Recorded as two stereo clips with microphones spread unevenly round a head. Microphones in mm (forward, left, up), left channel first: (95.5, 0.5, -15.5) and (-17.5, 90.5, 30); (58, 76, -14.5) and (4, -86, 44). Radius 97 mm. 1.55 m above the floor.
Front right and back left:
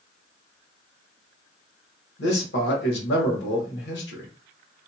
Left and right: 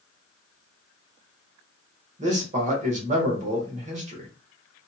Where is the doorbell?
I don't hear a doorbell.